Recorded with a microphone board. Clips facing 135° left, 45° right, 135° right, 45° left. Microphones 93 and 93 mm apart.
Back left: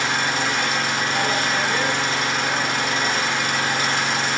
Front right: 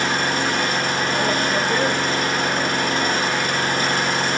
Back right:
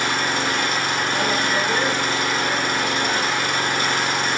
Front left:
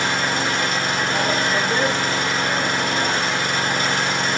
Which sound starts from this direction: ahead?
An engine running, at 0.0 s.